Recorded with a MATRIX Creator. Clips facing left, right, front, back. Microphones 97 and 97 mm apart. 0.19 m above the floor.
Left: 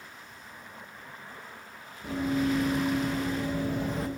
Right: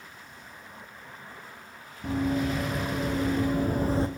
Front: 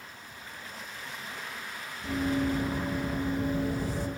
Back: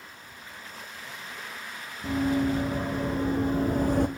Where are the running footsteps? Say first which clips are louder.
Right 1 dB, back 3 dB; 120° right, 2.5 m; by 4.1 s 155° right, 0.5 m.